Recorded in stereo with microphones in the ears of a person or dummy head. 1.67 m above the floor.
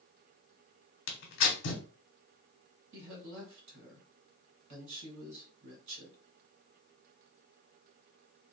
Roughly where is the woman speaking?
Right.